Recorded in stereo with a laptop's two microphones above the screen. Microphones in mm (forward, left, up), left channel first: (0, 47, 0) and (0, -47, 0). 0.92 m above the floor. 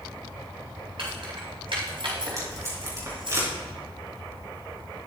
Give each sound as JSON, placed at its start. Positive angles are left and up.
{"t": 1.0, "sound": "keys jangling", "side_deg": -65, "distance_m": 4.0}
{"t": 2.4, "sound": "tape being pulled", "side_deg": -35, "distance_m": 4.0}